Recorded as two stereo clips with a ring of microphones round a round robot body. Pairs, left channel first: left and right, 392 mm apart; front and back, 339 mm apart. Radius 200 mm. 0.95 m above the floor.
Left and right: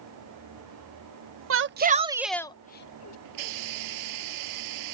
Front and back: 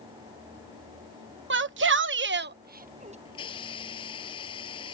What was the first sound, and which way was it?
A shout, 135° right.